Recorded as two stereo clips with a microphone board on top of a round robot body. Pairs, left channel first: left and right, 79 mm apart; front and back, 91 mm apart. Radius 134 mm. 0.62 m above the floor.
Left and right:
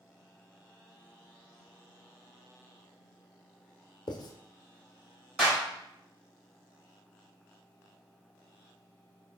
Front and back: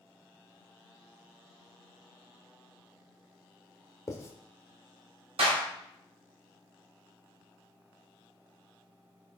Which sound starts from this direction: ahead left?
Writing, at 4.1 s.